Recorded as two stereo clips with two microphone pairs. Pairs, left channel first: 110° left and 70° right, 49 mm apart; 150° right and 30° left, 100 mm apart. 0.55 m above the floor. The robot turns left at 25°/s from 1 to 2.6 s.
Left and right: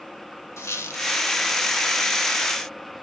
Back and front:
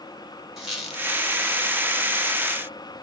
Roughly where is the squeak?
Behind left.